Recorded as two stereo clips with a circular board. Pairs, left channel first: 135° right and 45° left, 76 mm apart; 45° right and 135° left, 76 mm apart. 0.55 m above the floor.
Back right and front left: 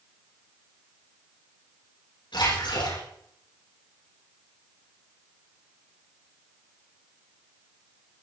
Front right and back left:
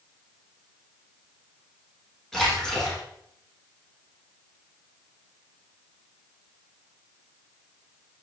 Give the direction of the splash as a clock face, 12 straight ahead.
4 o'clock.